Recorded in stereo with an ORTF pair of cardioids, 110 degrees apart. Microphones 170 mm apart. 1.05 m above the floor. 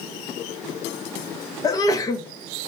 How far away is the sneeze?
About 0.6 m.